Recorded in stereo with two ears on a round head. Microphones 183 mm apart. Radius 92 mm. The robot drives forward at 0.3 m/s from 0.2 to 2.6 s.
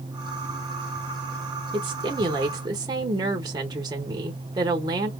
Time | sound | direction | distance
1.7 | a woman speaking | 25° right (ahead or behind) | 0.8 m